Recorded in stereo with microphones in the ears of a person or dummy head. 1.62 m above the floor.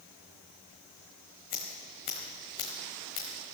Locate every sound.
1.5 s scissors: 25° left (ahead or behind), 1.5 m